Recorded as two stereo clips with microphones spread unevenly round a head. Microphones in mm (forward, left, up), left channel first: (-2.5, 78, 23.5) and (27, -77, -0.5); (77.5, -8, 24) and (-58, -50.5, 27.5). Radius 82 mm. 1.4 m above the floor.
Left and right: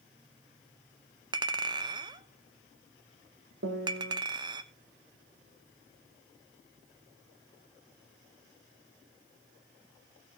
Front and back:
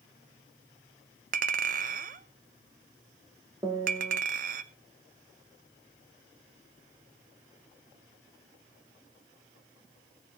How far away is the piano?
About 1.6 m.